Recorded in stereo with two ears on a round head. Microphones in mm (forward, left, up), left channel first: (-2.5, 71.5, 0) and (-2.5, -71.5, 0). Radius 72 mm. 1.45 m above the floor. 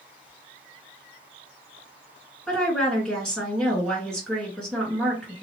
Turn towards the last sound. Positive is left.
turn(degrees=5)  # may be behind; listen again after turning